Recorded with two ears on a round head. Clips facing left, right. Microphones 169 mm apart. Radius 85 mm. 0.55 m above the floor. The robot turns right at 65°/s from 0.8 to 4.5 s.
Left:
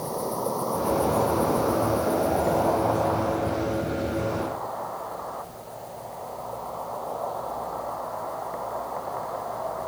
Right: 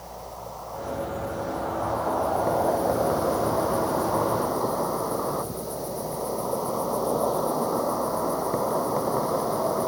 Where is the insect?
65° left; by 9.9 s 55° right.